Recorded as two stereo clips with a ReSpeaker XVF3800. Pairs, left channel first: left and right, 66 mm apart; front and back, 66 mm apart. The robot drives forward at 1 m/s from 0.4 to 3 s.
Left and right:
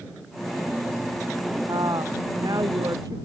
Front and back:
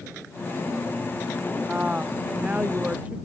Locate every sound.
1.7 s a woman speaking: 105° right; by 3.2 s 110° right